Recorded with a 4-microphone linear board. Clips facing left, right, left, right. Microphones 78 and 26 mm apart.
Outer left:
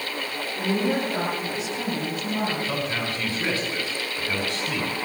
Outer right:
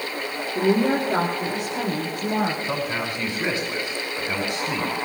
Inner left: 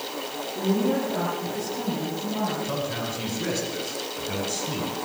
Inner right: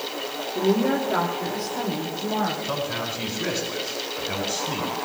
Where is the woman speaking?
70° right (ahead or behind), 4 m; by 2.5 s 75° right (ahead or behind), 5.5 m.